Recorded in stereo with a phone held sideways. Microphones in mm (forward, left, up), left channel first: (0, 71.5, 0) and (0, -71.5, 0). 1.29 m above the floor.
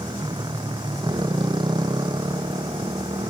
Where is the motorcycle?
30° right (ahead or behind).